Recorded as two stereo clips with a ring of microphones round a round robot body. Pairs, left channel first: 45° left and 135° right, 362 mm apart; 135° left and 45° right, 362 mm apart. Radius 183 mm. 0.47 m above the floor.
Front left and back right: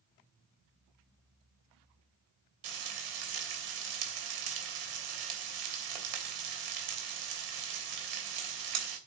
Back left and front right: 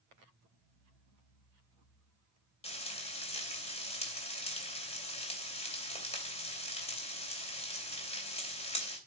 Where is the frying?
155° right, 3 m.